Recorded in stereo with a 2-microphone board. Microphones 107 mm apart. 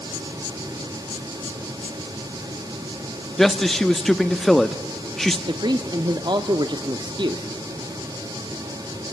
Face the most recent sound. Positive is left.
turn(degrees=-45)  # may be behind; listen again after turning